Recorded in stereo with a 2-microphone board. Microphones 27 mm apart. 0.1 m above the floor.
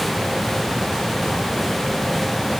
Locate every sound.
Only background noise.